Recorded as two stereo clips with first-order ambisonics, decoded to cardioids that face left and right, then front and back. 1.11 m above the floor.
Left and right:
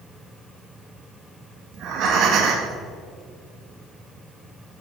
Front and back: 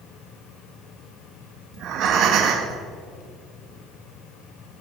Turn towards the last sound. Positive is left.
turn(degrees=-135)